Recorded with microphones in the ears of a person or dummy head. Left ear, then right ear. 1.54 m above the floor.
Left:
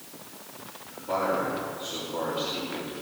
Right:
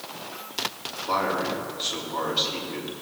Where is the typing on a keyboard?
I don't hear typing on a keyboard.